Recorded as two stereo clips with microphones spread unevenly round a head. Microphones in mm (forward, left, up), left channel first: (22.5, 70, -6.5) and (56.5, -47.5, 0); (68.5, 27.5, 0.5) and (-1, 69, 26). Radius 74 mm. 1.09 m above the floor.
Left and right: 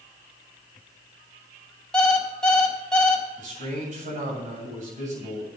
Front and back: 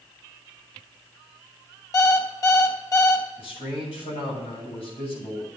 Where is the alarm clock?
20° left, 3 m.